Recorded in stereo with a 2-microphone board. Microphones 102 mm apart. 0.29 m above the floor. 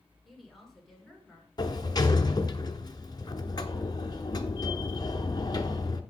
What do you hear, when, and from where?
0.2 s a woman speaking: centre (ahead or behind), 4 m; by 1.5 s 5° left (ahead or behind), 4.5 m
1.6 s a sliding door: 40° left (ahead or behind), 0.8 m